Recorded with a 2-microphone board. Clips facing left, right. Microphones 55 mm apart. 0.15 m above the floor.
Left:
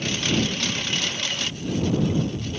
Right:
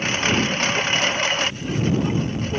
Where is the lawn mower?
40° right (ahead or behind); by 2.6 s 45° right (ahead or behind).